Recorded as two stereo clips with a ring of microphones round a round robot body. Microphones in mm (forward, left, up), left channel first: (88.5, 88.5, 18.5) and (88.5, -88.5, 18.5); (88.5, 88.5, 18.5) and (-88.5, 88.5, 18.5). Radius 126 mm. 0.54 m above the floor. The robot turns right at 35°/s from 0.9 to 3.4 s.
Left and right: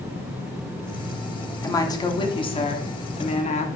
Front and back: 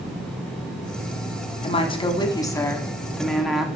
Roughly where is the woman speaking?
Ahead left.